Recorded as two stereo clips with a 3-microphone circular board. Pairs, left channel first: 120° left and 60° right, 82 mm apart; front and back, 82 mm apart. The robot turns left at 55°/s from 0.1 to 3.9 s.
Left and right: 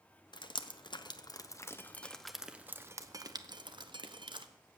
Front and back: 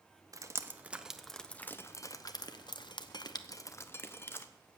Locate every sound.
0.3 s dripping: 135° left, 0.9 m; by 4.5 s 60° right, 0.9 m